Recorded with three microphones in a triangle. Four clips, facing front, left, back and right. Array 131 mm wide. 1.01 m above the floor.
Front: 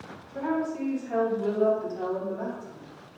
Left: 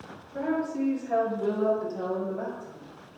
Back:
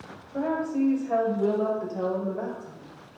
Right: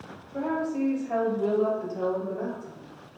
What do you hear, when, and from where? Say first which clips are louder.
0.3 s a woman speaking: even, back 2 dB; 165° right, 5.5 m; by 2.8 s 175° left, 5 m